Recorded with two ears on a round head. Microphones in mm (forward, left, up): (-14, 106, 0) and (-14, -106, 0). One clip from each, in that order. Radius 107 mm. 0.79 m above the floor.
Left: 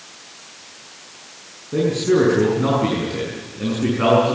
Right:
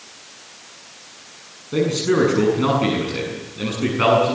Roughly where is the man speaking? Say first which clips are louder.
Left 1 dB; right.